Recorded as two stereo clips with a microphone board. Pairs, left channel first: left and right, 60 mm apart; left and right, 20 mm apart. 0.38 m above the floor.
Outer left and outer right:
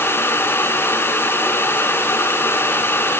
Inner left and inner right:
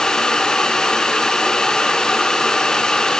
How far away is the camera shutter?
I don't hear a camera shutter.